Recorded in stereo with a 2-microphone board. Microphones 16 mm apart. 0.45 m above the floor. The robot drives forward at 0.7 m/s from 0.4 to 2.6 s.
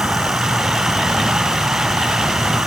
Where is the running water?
85° right; by 2.7 s 80° right.